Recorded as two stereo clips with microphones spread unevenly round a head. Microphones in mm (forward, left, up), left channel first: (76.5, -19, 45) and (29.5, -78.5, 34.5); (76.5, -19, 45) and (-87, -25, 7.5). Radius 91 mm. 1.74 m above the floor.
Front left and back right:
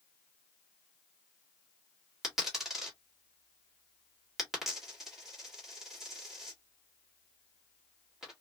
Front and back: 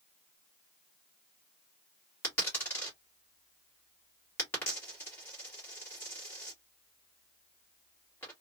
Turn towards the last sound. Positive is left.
turn(degrees=-30)